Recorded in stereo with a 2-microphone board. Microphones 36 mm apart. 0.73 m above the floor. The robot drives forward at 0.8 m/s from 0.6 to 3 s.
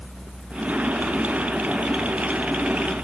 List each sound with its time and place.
Only background noise.